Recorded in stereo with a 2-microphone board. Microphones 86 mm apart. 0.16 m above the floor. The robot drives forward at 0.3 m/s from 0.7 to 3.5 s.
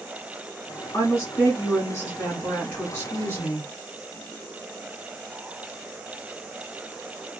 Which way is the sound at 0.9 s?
30° left (ahead or behind).